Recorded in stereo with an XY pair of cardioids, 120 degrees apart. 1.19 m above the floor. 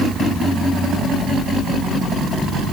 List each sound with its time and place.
Only background noise.